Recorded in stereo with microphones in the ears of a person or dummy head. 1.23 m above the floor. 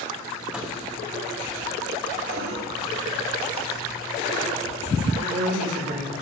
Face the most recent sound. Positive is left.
turn(degrees=-50)  # may be behind; listen again after turning